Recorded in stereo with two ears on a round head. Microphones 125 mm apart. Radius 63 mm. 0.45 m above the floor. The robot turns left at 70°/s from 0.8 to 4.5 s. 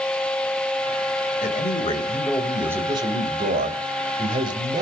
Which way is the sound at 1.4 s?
75° left.